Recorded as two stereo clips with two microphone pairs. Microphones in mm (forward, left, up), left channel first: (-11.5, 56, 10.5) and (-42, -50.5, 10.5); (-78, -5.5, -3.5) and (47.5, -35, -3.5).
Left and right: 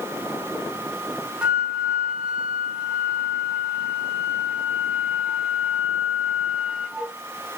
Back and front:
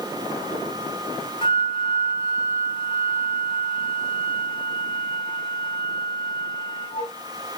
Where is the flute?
175° left, 0.6 m.